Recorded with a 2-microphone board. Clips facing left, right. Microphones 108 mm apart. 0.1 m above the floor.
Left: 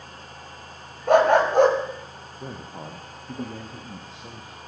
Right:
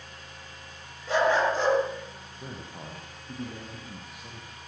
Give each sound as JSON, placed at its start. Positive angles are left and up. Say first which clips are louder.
{"t": 1.1, "sound": "a dog barking", "louder": "left 7 dB", "side_deg": 55, "distance_m": 7.5}
{"t": 2.4, "sound": "a man speaking", "louder": "left 4 dB", "side_deg": 25, "distance_m": 3.5}